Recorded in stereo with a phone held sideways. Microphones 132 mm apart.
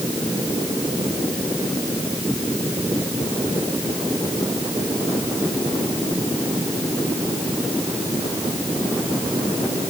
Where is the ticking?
No ticking in this recording.